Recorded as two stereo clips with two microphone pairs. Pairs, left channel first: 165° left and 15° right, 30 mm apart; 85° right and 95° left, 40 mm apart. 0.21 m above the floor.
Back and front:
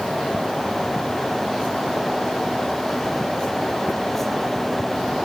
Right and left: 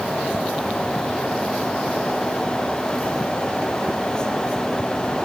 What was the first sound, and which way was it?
Only background noise.